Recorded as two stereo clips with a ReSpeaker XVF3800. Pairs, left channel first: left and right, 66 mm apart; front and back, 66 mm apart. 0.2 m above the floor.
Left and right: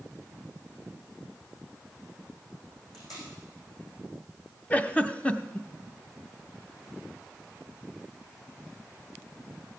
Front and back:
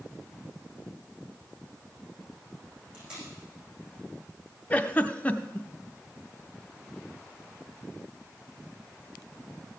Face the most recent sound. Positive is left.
turn(degrees=45)